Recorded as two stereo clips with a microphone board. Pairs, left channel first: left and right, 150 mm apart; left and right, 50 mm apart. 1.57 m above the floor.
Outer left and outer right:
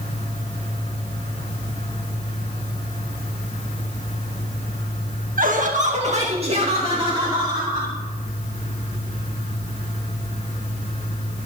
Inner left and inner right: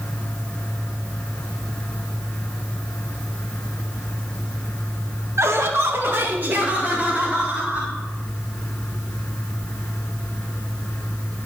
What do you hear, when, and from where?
5.4 s laughter: 70° right (ahead or behind), 1.5 m; by 8.0 s 30° right (ahead or behind), 3.5 m